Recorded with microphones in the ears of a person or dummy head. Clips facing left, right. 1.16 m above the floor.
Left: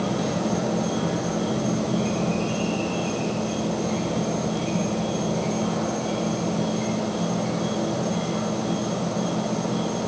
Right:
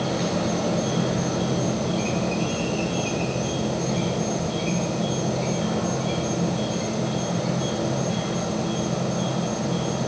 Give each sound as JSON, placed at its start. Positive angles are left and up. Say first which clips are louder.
{"t": 0.0, "sound": "an insect", "louder": "even", "side_deg": -15, "distance_m": 10.0}